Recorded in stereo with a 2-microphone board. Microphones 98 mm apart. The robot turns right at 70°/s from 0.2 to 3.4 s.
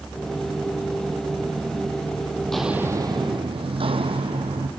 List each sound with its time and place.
2.4 s footsteps: 20° left (ahead or behind), 1.4 m; by 4.7 s 70° right (ahead or behind), 2 m